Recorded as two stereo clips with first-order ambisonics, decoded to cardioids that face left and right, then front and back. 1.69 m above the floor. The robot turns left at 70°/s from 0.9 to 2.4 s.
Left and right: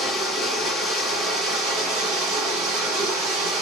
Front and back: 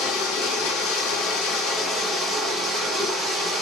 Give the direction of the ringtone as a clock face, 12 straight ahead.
No ringtone in this recording.